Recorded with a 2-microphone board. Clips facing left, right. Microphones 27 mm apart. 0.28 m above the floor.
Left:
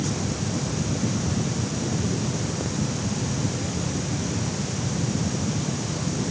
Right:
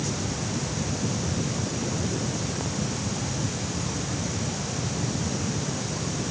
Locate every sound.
Only background noise.